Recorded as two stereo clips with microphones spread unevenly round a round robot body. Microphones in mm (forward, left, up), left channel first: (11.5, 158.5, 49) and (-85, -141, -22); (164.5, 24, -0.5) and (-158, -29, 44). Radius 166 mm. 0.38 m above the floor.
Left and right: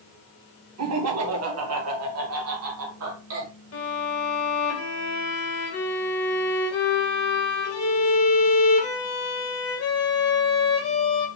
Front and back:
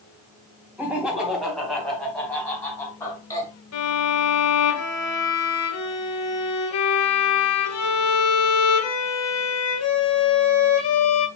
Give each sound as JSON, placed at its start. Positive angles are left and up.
{"t": 0.8, "sound": "laughter", "azimuth_deg": -80, "distance_m": 2.5}
{"t": 3.7, "sound": "a violin", "azimuth_deg": 25, "distance_m": 2.5}